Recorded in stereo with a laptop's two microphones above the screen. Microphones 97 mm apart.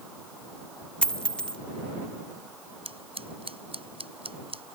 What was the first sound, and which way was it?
A dropped coin, 10° left (ahead or behind).